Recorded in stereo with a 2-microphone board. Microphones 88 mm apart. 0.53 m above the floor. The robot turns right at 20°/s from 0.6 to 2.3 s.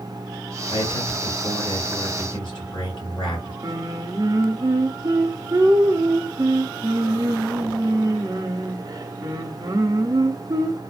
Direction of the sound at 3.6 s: 40° right (ahead or behind).